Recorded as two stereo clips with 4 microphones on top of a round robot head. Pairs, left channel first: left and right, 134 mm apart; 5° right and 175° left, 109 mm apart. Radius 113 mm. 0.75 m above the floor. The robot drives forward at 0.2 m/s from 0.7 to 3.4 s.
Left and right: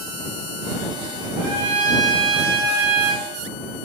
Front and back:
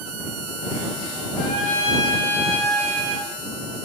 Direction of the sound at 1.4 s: 30° right.